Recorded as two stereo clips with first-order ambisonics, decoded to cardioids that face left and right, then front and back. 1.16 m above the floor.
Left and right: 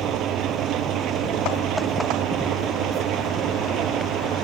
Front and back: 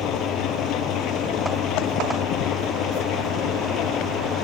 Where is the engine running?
45° right.